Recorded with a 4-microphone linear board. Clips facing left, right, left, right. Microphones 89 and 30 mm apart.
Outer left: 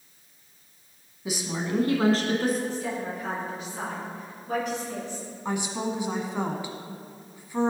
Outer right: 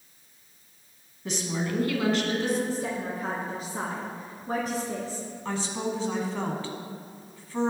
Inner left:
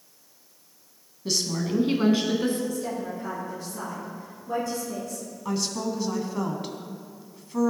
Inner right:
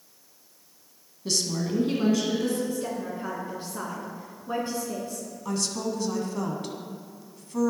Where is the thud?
No thud in this recording.